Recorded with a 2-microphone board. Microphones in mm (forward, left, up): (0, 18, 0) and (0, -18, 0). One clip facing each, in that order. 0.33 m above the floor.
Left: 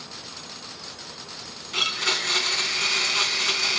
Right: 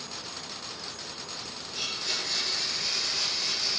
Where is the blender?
70° left (ahead or behind), 1.8 m.